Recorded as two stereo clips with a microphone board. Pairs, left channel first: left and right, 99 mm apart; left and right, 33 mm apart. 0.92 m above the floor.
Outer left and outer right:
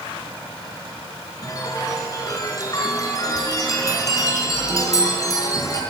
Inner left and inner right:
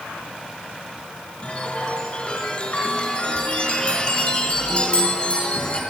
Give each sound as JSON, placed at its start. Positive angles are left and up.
{"t": 1.4, "sound": "a chime", "side_deg": 35, "distance_m": 3.5}